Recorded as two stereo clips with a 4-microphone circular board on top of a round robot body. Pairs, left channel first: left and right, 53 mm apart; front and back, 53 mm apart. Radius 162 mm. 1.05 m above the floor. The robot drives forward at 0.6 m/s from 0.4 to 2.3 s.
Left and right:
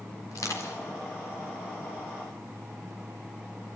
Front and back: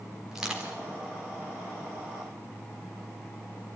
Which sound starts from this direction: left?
Crushing, at 0.3 s.